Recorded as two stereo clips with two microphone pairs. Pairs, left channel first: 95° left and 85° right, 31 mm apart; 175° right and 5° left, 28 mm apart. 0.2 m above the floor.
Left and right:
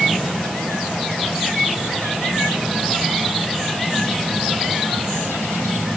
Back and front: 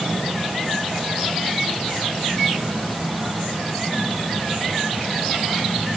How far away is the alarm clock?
No alarm clock in this recording.